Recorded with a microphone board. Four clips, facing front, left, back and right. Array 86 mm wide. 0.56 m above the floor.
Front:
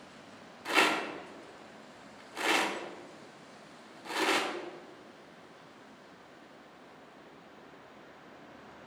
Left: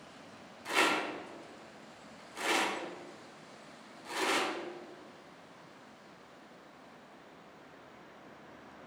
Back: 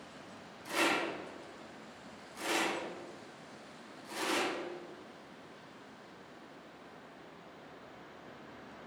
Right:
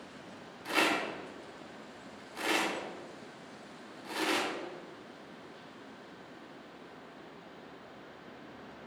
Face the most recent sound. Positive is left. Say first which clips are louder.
# even, front 4 dB
turn(degrees=-10)